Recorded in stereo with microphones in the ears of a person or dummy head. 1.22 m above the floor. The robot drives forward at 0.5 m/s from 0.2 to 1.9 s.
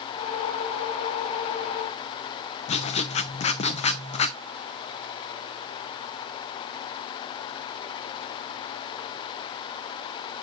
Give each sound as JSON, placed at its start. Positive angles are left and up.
{"t": 2.7, "sound": "writing", "side_deg": 30, "distance_m": 0.7}